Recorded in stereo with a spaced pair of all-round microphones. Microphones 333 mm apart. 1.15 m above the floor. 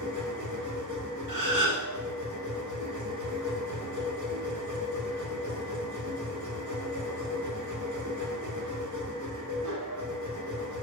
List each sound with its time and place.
0.0 s a machine running: 60° right (ahead or behind), 0.8 m
1.3 s a gasp: 65° right (ahead or behind), 0.9 m